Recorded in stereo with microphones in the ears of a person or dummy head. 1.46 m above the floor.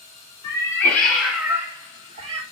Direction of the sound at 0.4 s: 20° left (ahead or behind).